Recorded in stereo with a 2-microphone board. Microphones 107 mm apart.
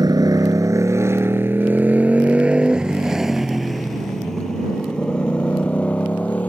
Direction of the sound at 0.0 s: 40° right (ahead or behind).